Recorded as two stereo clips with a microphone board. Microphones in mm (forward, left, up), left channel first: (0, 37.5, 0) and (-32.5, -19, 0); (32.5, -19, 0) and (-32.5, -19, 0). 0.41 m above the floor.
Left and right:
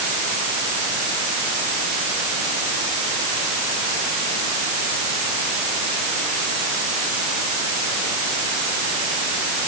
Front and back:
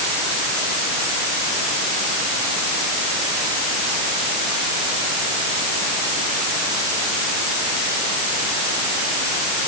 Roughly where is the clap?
No clap in this recording.